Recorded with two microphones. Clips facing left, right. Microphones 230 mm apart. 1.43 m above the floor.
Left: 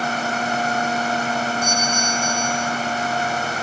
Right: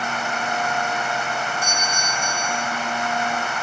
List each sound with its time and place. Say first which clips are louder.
1.6 s a doorbell: left 5 dB; 10° right (ahead or behind), 8 m